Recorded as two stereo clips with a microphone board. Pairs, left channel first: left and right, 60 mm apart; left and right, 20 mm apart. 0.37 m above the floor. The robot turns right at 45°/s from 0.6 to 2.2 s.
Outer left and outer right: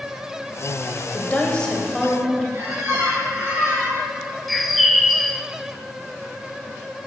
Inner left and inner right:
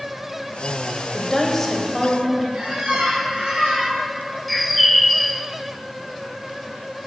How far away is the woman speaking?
About 1.5 m.